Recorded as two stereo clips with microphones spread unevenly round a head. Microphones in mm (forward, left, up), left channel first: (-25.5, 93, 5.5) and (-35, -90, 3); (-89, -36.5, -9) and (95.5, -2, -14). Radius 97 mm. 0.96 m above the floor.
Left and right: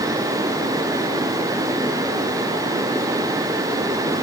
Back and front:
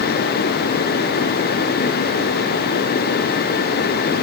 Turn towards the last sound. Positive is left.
No sound to turn to.